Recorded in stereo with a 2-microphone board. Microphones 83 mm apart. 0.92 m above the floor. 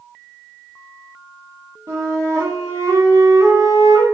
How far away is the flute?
About 0.9 m.